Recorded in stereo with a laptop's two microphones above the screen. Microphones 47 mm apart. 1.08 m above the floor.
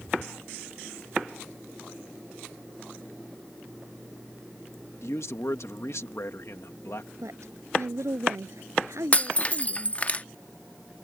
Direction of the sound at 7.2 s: 80° right.